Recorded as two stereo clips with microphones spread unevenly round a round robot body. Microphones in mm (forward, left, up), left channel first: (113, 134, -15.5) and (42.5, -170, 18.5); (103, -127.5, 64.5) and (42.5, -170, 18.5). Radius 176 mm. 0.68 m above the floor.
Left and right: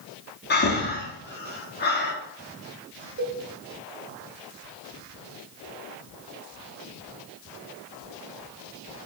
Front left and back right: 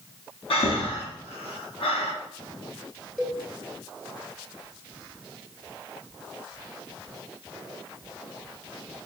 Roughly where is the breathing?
Ahead left.